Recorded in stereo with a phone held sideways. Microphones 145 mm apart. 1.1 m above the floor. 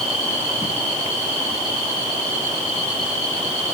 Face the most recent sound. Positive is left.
No sound to turn to.